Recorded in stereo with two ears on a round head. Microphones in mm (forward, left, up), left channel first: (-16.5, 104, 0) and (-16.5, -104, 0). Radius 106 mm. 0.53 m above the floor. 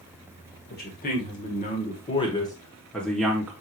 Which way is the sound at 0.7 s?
40° left (ahead or behind).